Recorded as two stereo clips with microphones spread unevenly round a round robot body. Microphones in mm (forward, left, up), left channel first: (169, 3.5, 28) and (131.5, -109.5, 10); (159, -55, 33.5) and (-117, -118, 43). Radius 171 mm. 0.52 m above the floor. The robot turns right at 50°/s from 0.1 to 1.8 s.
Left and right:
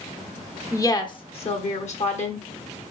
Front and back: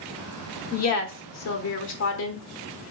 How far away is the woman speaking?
About 1.2 m.